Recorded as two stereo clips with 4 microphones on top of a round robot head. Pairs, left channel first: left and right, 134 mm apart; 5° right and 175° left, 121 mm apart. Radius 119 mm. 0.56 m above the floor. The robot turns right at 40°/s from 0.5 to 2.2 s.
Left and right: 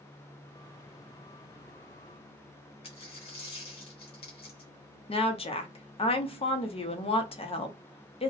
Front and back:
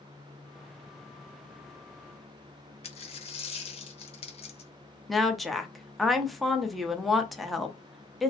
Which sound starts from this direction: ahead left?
A dropped coin, at 2.8 s.